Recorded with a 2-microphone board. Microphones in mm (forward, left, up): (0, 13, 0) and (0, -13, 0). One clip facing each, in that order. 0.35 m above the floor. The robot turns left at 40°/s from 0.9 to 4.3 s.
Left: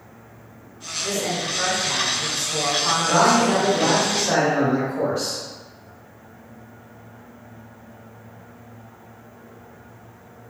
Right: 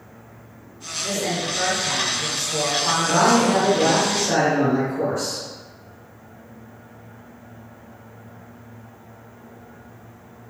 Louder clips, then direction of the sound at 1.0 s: Even; 10° right (ahead or behind).